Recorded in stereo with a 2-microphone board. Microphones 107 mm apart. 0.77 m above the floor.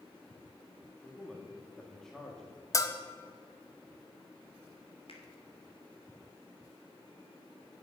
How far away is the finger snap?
About 3 m.